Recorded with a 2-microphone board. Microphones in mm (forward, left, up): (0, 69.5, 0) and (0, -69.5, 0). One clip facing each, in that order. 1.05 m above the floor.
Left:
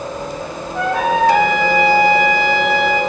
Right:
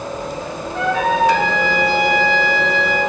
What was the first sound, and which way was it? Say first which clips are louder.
A trumpet: left 1 dB; 40° left (ahead or behind).